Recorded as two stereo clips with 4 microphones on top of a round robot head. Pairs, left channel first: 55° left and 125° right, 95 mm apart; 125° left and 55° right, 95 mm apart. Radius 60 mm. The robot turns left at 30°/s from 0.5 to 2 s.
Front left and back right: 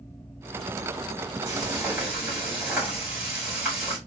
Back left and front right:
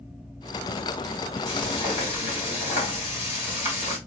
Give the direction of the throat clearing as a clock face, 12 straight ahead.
No throat clearing in this recording.